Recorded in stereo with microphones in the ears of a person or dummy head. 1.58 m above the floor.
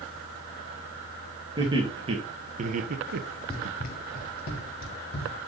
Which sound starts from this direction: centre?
Running footsteps, at 3.5 s.